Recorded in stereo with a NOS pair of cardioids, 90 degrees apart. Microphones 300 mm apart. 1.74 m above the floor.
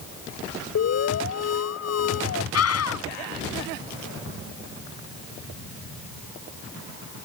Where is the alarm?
55° left.